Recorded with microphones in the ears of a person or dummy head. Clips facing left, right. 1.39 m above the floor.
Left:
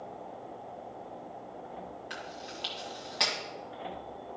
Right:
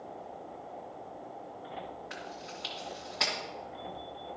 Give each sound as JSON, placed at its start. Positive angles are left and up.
{"t": 2.1, "sound": "chewing", "side_deg": 40, "distance_m": 1.8}